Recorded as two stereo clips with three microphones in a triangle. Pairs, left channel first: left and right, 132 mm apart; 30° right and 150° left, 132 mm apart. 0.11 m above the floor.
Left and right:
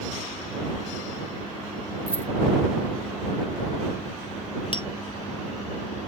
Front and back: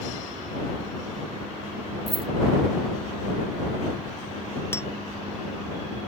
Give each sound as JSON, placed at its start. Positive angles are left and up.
{"t": 2.1, "sound": "keys jangling", "azimuth_deg": -165}
{"t": 4.7, "sound": "tapping", "azimuth_deg": 40}